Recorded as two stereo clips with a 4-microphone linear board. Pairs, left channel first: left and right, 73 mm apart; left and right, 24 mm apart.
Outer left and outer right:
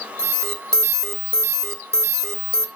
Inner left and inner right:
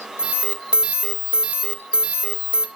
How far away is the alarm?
About 2 m.